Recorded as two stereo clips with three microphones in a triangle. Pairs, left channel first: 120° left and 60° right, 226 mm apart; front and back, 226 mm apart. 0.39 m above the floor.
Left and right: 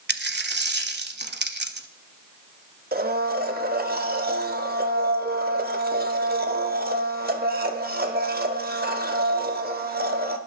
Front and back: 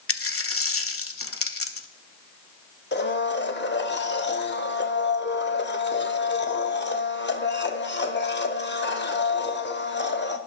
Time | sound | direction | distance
0.1 | a dropped coin | 15° right | 0.7 m
2.9 | a blender | 25° right | 0.8 m